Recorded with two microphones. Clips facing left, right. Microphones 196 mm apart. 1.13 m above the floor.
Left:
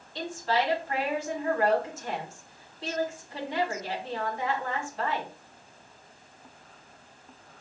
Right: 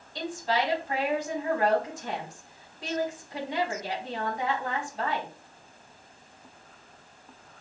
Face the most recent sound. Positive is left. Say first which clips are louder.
# even
turn(degrees=-15)  # may be behind; listen again after turning